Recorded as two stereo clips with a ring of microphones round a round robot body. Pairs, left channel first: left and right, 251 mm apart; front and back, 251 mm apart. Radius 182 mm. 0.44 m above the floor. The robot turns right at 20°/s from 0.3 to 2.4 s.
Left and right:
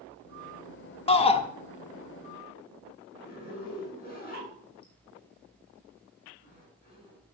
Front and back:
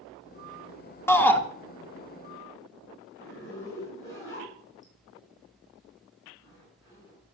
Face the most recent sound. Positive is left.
turn(degrees=40)